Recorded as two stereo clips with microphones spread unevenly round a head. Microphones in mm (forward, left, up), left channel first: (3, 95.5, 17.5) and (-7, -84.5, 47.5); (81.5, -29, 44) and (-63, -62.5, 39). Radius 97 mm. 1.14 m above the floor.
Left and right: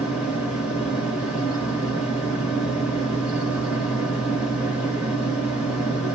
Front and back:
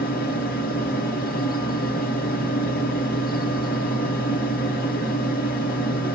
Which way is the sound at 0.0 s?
5° right.